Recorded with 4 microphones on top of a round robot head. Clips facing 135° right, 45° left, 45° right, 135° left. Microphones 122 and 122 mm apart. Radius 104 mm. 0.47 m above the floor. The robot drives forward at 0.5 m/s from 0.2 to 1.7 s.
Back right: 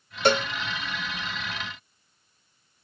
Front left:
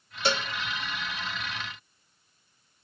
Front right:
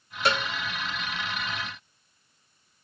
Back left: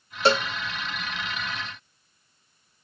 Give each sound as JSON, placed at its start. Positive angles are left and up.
{"t": 0.2, "sound": "a cowbell", "azimuth_deg": -170, "distance_m": 0.5}